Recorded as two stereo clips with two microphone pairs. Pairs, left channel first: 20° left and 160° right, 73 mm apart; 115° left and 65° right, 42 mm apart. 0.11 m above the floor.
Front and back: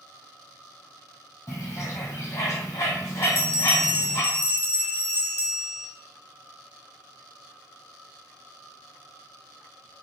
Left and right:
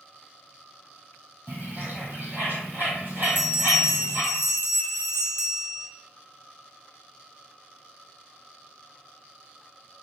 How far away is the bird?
About 1.5 m.